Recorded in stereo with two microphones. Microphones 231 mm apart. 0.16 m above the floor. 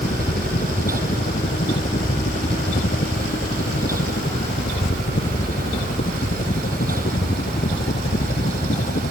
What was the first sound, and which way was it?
A helicopter, 40° left (ahead or behind).